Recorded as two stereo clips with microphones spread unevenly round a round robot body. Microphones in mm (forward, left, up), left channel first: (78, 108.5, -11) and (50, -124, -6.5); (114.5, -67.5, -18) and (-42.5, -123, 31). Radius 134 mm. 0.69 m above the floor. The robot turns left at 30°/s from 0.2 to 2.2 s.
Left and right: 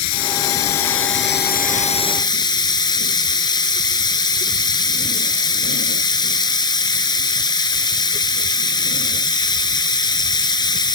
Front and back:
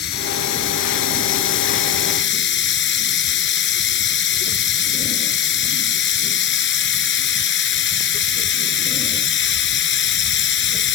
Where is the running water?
70° left; by 11.0 s 10° left.